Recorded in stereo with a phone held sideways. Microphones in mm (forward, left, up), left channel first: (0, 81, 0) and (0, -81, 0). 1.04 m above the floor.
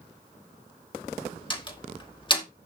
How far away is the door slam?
About 2 m.